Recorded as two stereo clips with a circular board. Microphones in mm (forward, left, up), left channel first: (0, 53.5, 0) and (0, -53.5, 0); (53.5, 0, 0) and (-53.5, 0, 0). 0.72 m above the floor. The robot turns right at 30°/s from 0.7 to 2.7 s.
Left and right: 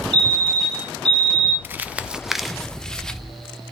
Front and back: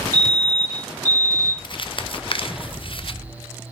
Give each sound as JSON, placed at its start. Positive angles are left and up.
{"t": 0.1, "sound": "a fire alarm", "azimuth_deg": -130, "distance_m": 3.0}
{"t": 1.6, "sound": "crumpling", "azimuth_deg": -25, "distance_m": 0.5}